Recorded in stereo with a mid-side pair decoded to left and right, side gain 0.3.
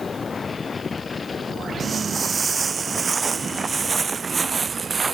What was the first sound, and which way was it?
Footsteps, 50° right.